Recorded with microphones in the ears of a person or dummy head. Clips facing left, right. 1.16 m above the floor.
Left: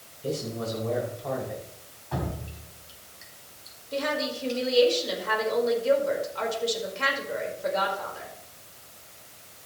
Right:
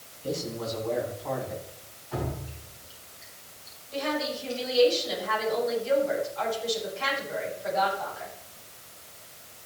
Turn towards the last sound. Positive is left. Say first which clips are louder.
# left 1 dB
turn(degrees=75)  # may be behind; listen again after turning